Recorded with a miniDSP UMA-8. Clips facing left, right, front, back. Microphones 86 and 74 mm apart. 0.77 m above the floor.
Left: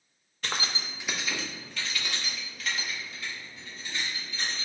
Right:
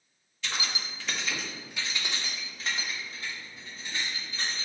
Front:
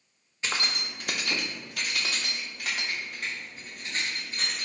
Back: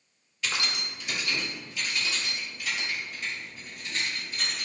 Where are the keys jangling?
60° left, 0.5 m; by 4.7 s 45° right, 2 m.